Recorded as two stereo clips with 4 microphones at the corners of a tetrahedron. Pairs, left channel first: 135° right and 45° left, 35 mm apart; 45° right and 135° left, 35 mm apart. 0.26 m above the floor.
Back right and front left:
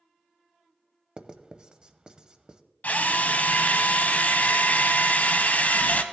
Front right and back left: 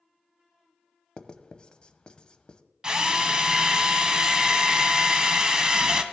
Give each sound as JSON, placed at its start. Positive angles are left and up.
{"t": 1.2, "sound": "writing", "azimuth_deg": -5, "distance_m": 0.7}
{"t": 2.8, "sound": "a drill", "azimuth_deg": -160, "distance_m": 0.9}